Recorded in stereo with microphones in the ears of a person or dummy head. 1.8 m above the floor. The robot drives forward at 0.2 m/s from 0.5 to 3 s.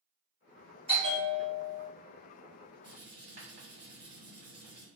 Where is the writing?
40° right (ahead or behind), 1.6 m.